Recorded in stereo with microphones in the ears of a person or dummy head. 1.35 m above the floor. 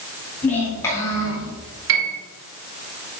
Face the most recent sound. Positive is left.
turn(degrees=-65)  # may be behind; listen again after turning